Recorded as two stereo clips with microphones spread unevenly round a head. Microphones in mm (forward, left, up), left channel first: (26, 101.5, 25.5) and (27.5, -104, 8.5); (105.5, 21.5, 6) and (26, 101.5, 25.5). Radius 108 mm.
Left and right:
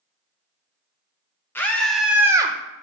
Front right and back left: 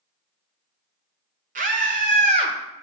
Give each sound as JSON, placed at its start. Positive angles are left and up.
{"t": 1.6, "sound": "a scream", "azimuth_deg": 170, "distance_m": 1.4}